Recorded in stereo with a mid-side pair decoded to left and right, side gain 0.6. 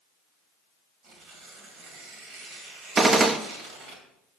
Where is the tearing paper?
65° right, 2 m.